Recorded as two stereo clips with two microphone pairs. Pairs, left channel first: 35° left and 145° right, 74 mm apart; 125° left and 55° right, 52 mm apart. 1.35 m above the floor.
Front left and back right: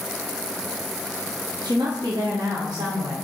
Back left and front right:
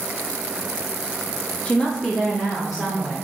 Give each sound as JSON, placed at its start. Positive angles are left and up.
{"t": 1.6, "sound": "a woman speaking", "azimuth_deg": -170, "distance_m": 0.6}